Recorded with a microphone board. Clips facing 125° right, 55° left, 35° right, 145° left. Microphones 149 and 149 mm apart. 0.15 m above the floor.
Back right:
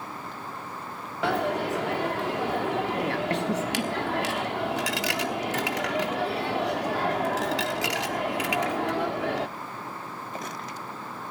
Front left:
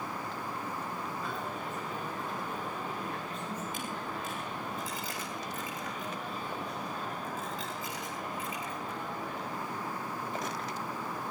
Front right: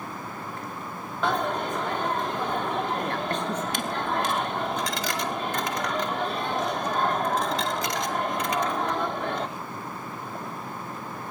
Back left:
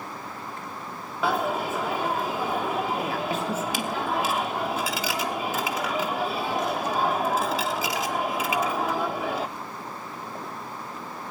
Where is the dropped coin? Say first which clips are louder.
Back right 12 dB, back left 1 dB; 130° right, 1.0 m.